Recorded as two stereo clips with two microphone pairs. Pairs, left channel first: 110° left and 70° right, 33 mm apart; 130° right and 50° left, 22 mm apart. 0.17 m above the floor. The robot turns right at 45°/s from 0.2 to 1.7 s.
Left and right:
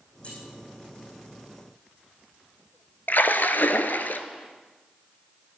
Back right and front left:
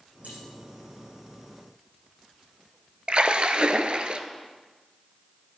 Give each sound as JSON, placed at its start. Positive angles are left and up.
{"t": 0.2, "sound": "keys jangling", "azimuth_deg": 50, "distance_m": 5.5}
{"t": 3.1, "sound": "a splash", "azimuth_deg": 85, "distance_m": 0.6}